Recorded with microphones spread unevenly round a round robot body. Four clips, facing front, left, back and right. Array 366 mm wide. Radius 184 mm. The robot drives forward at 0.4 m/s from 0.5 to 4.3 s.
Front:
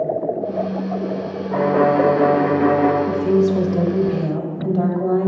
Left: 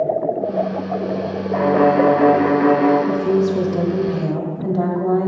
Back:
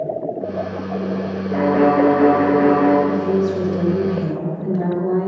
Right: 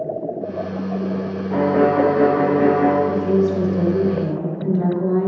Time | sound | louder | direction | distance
1.5 | a violin | left 2 dB, back 1 dB | 70° right | 1.8 m
3.1 | a woman speaking | left 1 dB, front 2 dB | 50° left | 1.6 m